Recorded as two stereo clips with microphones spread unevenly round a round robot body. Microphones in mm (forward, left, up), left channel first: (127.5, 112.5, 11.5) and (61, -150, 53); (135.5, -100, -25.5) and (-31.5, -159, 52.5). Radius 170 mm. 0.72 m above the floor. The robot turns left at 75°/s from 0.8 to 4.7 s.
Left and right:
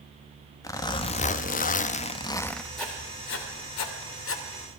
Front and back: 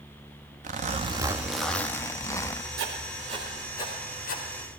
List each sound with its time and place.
0.6 s a zipper: 135° left, 1.0 m; by 2.7 s 5° right, 1.0 m
2.8 s writing: 165° left, 3 m; by 4.4 s 40° left, 3 m